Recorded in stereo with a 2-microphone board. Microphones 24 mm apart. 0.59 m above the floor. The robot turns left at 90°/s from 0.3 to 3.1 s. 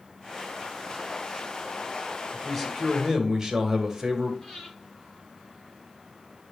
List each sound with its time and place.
2.3 s a man speaking: 50° left, 2.5 m; by 4.3 s 20° right, 2.5 m
4.4 s breathing: 25° left (ahead or behind), 5.5 m